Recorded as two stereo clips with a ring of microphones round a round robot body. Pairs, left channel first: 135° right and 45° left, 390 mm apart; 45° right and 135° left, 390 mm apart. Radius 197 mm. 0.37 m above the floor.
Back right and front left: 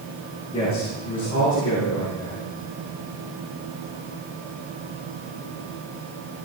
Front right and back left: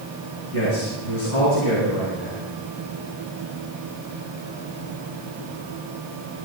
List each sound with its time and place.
0.5 s a man speaking: 60° right, 5 m; by 2.4 s 50° right, 6 m